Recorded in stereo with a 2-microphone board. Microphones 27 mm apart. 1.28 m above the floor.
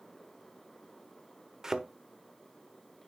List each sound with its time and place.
1.6 s a thud: 25° right (ahead or behind), 1.0 m